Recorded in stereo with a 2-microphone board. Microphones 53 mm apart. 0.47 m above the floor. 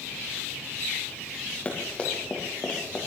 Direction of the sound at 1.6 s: 25° left (ahead or behind).